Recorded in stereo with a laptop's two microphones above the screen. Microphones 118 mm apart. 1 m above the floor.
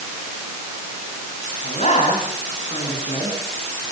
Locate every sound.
1.6 s a man speaking: 70° left (ahead or behind), 9.5 m; by 3.4 s 60° left (ahead or behind), 10 m